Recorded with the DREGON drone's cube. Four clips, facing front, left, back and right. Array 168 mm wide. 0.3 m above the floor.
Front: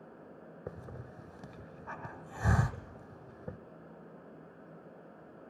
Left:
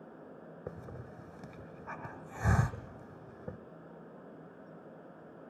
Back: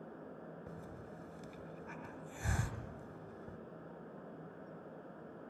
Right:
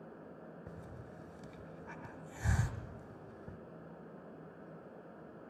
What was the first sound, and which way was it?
A hiss, 45° left.